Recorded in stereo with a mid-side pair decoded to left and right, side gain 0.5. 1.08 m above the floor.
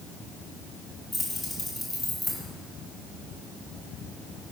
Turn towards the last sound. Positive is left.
turn(degrees=15)